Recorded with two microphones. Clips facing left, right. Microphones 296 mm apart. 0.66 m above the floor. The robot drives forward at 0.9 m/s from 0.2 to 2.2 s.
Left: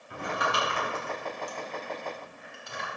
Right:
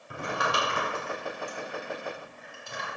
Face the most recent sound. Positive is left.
turn(degrees=-55)  # may be behind; listen again after turning